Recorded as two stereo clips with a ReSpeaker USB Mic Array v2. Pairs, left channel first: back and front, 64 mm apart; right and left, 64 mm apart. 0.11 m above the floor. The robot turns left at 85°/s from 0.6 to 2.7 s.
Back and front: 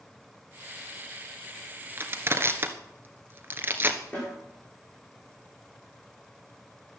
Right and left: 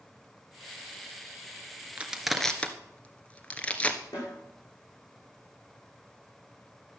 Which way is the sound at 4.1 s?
110° right.